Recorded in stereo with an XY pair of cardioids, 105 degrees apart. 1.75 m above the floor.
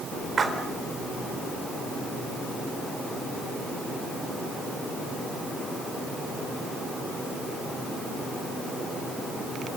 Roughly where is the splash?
Ahead right.